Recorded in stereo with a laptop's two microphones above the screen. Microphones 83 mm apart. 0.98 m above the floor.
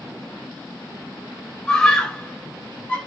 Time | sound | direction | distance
1.7 | a scream | 10° left (ahead or behind) | 4.5 m